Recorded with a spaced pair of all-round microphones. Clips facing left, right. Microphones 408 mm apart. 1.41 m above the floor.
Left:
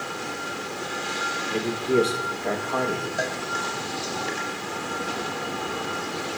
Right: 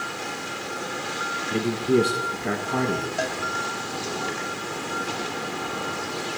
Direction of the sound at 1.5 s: 25° right (ahead or behind).